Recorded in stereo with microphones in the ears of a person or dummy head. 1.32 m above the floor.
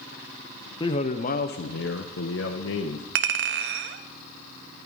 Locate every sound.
0.8 s a man speaking: 20° left (ahead or behind), 0.8 m; by 3.0 s 70° left (ahead or behind), 1.5 m
3.1 s a clink: 70° right (ahead or behind), 1.0 m